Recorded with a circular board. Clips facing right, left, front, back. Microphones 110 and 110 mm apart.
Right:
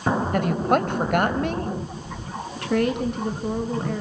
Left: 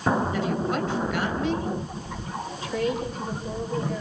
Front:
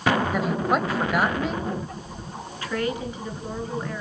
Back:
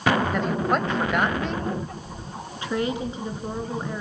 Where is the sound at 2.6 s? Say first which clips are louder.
Right 5 dB, back 1 dB; 110° right, 4.5 m.